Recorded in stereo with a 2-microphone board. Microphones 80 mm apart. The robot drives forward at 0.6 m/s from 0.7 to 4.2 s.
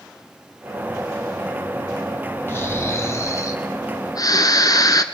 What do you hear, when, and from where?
2.5 s snoring: 30° left (ahead or behind), 2 m; by 5.0 s 50° left (ahead or behind), 1.4 m